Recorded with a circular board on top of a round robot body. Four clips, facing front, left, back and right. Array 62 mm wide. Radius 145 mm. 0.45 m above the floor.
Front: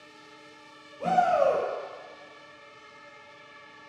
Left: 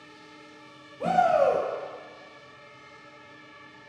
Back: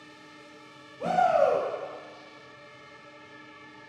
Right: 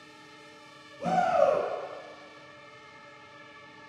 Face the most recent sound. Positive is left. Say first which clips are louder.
# left 2 dB, even
turn(degrees=90)